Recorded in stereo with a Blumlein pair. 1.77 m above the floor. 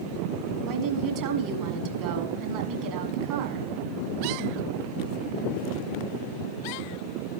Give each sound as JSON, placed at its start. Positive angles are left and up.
{"t": 0.7, "sound": "a woman speaking", "azimuth_deg": -40, "distance_m": 1.4}